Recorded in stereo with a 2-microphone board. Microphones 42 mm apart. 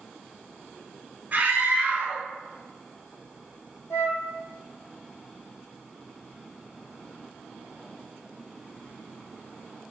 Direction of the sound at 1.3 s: 30° right (ahead or behind).